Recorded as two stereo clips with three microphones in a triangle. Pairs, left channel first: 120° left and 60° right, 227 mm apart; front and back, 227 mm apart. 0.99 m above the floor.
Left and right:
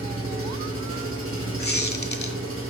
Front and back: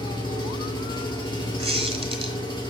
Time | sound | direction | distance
0.0 | an engine running | 70° right | 1.6 m
1.6 | a squeak | 125° left | 1.1 m